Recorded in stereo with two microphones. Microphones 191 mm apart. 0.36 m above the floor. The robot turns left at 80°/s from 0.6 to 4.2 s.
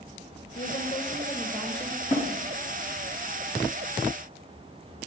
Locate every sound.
0.6 s a woman speaking: 100° left, 1.4 m; by 2.0 s 15° right, 1.4 m
2.1 s a snare drum: 40° left (ahead or behind), 3 m; by 2.3 s 50° left (ahead or behind), 3 m